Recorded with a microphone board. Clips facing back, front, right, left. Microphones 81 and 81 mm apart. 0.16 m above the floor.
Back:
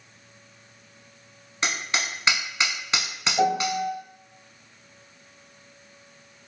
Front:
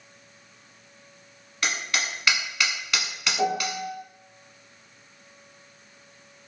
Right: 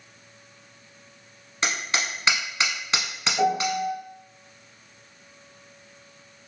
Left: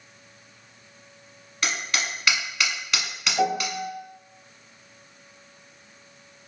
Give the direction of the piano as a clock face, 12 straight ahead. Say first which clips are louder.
Back 4 dB, right 2 dB; 6 o'clock.